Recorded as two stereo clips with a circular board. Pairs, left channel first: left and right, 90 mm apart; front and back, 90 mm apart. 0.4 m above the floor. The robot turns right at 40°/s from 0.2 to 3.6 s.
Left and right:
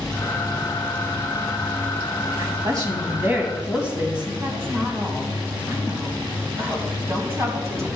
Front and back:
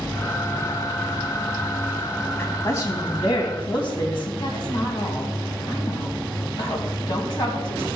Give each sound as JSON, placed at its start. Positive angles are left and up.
{"t": 2.4, "sound": "a woman speaking", "azimuth_deg": -60, "distance_m": 3.5}
{"t": 4.4, "sound": "a woman speaking", "azimuth_deg": -30, "distance_m": 2.5}